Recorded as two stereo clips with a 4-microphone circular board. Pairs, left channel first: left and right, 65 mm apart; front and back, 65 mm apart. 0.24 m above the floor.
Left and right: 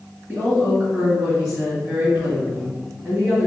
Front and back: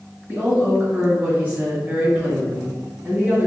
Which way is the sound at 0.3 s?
155° right.